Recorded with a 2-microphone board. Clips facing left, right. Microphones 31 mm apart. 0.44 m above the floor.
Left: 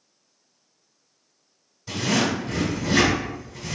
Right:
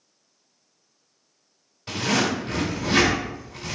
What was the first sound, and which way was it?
A zipper, 45° right (ahead or behind).